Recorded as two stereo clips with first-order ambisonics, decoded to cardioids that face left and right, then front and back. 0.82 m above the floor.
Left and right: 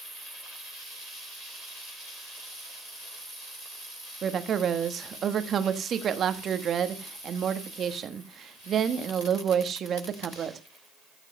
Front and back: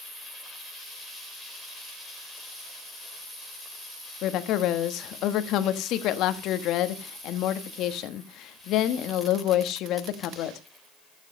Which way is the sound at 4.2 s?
30° right.